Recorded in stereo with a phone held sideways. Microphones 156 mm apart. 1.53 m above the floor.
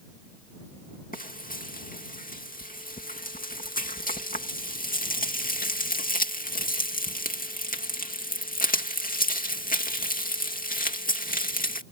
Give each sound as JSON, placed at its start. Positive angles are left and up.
{"t": 1.1, "sound": "frying", "side_deg": 65}